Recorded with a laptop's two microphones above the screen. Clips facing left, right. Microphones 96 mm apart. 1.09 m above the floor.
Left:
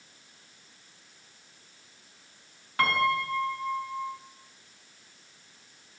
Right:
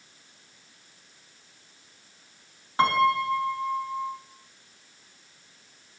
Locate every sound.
2.8 s a piano: 25° right (ahead or behind), 6 m